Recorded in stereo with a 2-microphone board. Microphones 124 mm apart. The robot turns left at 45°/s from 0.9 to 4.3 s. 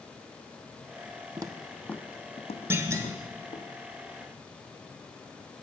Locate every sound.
1.4 s footsteps: 35° right (ahead or behind), 0.6 m; by 3.7 s 60° left (ahead or behind), 1.9 m
2.7 s a clunk: 20° right (ahead or behind), 1.0 m; by 3.1 s 30° right (ahead or behind), 1.0 m